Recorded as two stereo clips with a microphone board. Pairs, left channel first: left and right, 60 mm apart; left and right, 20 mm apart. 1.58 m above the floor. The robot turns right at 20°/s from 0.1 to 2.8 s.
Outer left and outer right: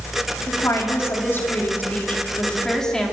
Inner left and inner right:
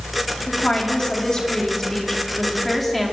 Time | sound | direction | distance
0.5 | a woman speaking | 125° left | 4.5 m